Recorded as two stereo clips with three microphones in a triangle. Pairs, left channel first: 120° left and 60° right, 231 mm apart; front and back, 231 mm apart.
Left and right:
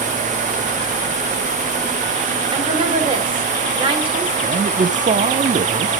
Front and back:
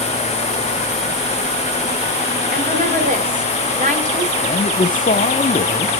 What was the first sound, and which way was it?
A woman speaking, 125° right.